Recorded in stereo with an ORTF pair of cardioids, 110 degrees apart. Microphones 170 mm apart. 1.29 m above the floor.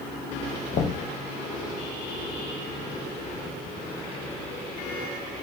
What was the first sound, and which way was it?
Knocking, 50° left.